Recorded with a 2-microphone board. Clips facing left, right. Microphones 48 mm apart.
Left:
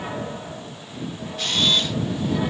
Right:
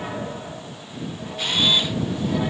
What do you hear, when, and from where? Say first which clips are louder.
1.4 s a camera shutter: right 1 dB; 15° right (ahead or behind)